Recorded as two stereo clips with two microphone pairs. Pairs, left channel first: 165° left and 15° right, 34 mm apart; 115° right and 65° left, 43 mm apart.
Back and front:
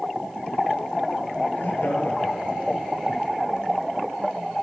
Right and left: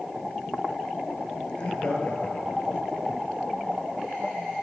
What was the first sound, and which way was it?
Laughter, straight behind.